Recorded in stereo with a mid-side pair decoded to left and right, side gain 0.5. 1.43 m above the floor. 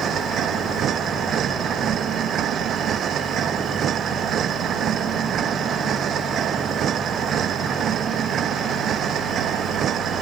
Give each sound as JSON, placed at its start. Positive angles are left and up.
{"t": 0.0, "sound": "a machine running", "azimuth_deg": -60}